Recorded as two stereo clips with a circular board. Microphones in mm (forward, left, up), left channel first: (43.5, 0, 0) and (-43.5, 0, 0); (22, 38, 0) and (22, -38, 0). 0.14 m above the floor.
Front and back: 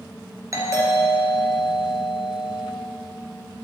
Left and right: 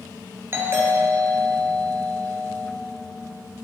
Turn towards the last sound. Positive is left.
turn(degrees=-140)